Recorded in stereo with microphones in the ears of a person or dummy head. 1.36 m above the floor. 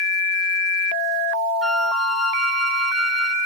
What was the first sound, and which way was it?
A flute, 5° left (ahead or behind).